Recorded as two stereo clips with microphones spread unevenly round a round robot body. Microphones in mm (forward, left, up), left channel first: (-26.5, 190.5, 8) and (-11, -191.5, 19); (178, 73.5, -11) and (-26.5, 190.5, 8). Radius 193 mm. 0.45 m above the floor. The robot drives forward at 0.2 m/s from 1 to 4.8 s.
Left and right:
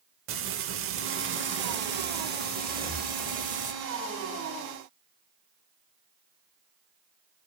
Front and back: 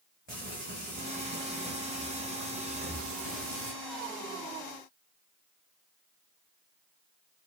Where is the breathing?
155° left, 1.5 m; by 3.1 s 160° left, 1.6 m.